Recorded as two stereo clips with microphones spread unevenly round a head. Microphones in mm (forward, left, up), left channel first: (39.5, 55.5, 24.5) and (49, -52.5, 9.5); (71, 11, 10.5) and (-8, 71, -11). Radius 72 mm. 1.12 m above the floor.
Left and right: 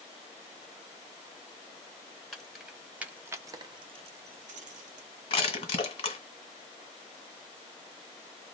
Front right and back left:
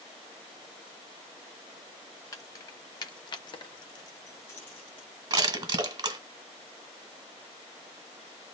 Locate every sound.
2.3 s keys jangling: 10° left, 1.0 m; by 5.1 s 115° right, 0.7 m
5.3 s crushing: 100° left, 1.3 m